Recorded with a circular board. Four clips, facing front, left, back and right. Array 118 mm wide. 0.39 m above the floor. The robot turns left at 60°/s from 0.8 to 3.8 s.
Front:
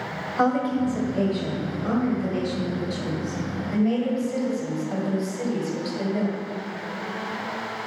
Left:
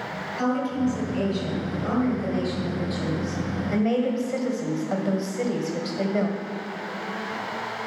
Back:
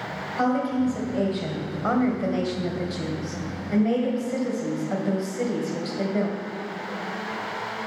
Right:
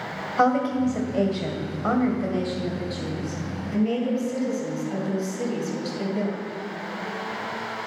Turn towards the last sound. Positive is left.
turn(degrees=105)